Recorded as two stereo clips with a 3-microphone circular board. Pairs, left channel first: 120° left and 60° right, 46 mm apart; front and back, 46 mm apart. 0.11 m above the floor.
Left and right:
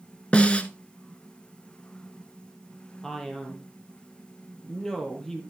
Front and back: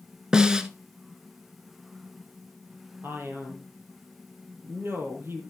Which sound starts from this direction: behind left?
A snare drum, at 0.3 s.